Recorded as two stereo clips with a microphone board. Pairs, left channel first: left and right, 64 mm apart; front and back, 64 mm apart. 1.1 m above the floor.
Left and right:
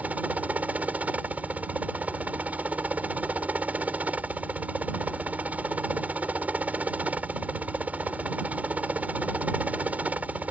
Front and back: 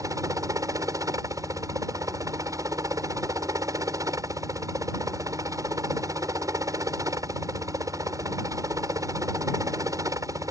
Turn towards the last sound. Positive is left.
turn(degrees=-155)